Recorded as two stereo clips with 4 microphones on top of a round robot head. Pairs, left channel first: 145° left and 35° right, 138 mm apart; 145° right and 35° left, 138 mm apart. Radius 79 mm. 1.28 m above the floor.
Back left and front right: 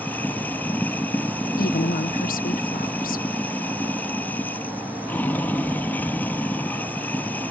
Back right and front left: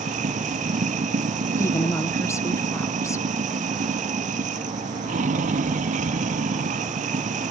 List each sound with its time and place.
0.0 s running water: 70° left
1.6 s a woman speaking: 145° left